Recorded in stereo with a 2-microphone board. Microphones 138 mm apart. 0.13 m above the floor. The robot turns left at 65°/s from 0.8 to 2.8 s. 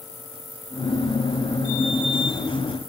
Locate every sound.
Only background noise.